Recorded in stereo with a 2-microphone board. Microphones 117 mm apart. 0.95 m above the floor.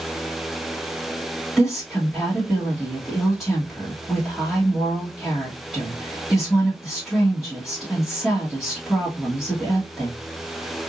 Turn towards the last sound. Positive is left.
turn(degrees=0)  # may be behind; listen again after turning